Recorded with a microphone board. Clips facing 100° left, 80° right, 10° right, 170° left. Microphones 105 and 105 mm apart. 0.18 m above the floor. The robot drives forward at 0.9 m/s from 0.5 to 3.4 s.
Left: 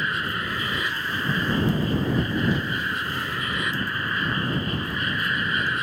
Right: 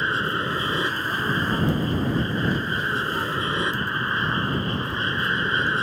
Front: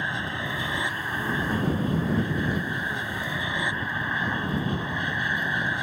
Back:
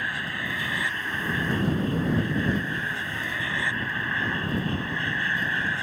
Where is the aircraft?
60° right; by 5.8 s 65° right.